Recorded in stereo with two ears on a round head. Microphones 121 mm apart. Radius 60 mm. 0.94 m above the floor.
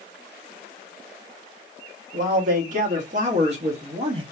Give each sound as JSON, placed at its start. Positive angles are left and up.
{"t": 2.1, "sound": "a man speaking", "side_deg": -65, "distance_m": 2.0}